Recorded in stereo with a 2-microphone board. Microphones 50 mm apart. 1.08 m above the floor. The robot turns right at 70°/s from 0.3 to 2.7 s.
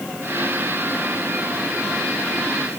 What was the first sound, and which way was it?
Only background noise.